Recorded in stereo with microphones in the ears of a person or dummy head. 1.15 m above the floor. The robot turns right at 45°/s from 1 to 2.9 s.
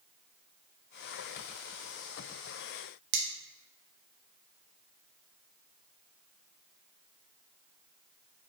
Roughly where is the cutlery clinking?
Right.